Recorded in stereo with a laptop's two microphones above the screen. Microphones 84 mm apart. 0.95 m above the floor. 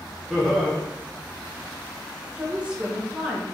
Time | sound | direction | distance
0.3 | laughter | 5° left (ahead or behind) | 0.8 m
2.4 | a woman speaking | 15° right (ahead or behind) | 0.9 m